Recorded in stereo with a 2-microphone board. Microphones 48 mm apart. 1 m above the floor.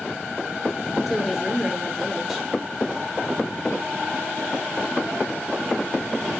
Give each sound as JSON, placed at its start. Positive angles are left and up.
{"t": 1.1, "sound": "a woman speaking", "side_deg": -5, "distance_m": 2.5}